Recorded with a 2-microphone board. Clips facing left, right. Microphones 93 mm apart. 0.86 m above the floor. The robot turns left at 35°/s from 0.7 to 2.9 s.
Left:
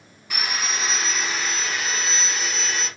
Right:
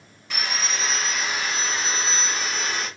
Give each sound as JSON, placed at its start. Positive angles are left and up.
{"t": 0.3, "sound": "sawing", "azimuth_deg": 10, "distance_m": 1.7}